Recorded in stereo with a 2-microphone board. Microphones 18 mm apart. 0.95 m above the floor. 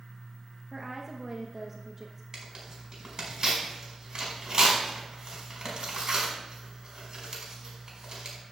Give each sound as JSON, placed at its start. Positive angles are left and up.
{"t": 0.7, "sound": "a woman speaking", "side_deg": -10, "distance_m": 1.2}
{"t": 2.3, "sound": "tearing paper", "side_deg": -40, "distance_m": 4.5}